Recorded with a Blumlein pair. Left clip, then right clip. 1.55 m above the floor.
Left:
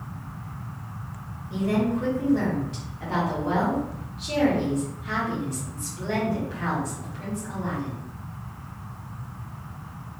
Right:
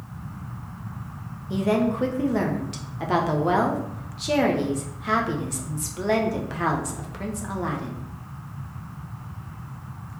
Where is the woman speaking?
30° right, 0.8 m.